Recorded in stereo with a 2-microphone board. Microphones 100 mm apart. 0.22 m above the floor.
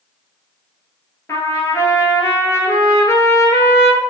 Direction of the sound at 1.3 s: 30° left (ahead or behind).